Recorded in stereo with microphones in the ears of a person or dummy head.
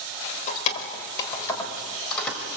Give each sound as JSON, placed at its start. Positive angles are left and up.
{"t": 0.5, "sound": "keys jangling", "side_deg": 45, "distance_m": 3.5}